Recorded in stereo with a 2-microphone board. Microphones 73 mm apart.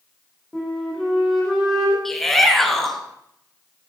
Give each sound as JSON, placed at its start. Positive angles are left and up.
{"t": 0.5, "sound": "a flute", "side_deg": 0, "distance_m": 6.5}
{"t": 2.0, "sound": "a shout", "side_deg": 5, "distance_m": 2.0}